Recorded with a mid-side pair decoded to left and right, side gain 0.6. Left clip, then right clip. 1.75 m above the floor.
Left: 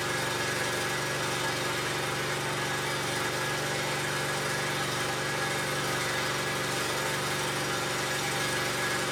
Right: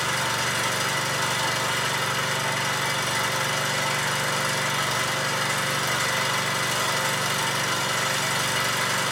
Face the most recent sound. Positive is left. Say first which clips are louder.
# right 5 dB
turn(degrees=-70)